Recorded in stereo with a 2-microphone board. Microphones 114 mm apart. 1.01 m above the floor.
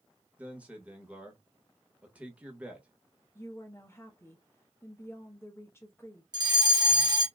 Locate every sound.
0.4 s a man speaking: 10° right (ahead or behind), 1.4 m
3.4 s a woman speaking: 20° left (ahead or behind), 1.0 m
6.3 s a fire alarm: 40° right (ahead or behind), 1.3 m